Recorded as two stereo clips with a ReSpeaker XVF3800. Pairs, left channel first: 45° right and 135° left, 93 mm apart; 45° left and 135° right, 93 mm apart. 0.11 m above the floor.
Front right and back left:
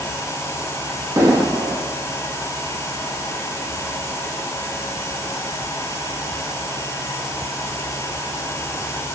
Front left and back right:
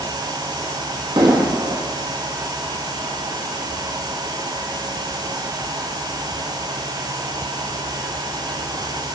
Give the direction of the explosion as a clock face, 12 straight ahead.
6 o'clock.